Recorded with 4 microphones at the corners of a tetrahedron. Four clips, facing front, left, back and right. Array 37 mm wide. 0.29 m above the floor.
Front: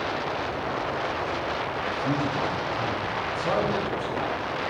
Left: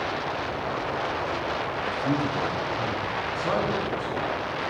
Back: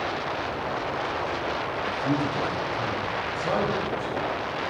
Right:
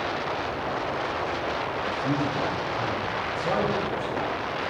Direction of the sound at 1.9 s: 165° left.